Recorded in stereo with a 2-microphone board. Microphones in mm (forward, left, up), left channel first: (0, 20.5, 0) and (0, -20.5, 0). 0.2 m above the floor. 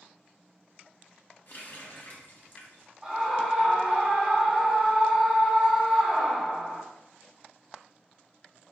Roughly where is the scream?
Centre.